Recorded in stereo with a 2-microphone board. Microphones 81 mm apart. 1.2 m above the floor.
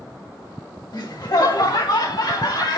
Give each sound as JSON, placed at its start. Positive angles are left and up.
{"t": 0.9, "sound": "laughter", "side_deg": 60, "distance_m": 1.5}